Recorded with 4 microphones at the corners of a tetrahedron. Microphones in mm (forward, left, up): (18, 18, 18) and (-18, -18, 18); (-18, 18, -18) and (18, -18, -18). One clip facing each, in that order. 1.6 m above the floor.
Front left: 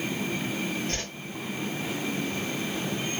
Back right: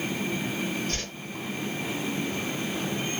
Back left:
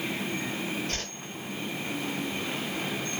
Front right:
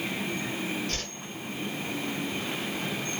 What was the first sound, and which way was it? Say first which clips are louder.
A whoosh: even, even; 85° left.